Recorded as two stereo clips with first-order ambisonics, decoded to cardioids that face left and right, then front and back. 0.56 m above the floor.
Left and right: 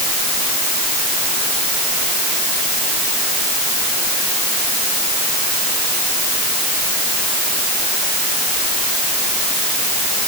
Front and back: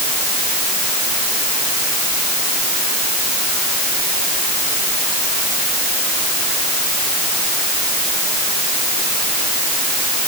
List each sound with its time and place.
Only background noise.